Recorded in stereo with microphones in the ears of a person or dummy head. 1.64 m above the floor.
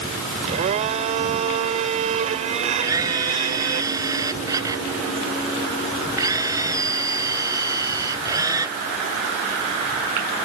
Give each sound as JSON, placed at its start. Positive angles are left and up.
{"t": 0.5, "sound": "a blender", "side_deg": -45}
{"t": 2.8, "sound": "a camera shutter", "side_deg": -20}